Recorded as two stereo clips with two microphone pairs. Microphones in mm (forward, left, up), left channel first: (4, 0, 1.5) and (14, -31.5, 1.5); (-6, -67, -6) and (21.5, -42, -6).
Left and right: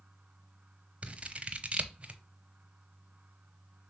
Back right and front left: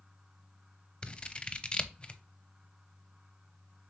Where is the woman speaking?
I don't hear a woman speaking.